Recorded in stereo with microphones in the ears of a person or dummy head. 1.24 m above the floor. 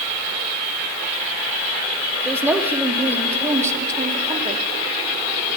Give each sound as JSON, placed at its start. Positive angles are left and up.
{"t": 2.2, "sound": "a woman speaking", "side_deg": 5, "distance_m": 3.0}